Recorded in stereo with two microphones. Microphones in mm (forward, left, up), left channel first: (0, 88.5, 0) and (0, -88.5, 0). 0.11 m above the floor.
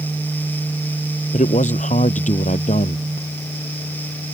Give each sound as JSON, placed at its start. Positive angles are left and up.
{"t": 1.3, "sound": "a man speaking", "side_deg": 45}